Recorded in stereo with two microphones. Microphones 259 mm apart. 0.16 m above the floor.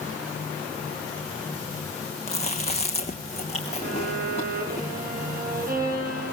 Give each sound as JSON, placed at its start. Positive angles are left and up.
{"t": 2.3, "sound": "chewing", "side_deg": 25, "distance_m": 2.5}
{"t": 3.8, "sound": "a violin", "side_deg": -35, "distance_m": 6.0}